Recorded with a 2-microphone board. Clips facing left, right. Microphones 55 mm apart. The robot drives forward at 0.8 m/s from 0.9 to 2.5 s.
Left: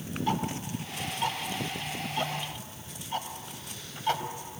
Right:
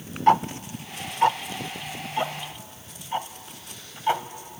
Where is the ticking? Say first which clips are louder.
Right 12 dB; 55° right (ahead or behind), 0.5 m; by 4.2 s 20° right (ahead or behind), 1.4 m.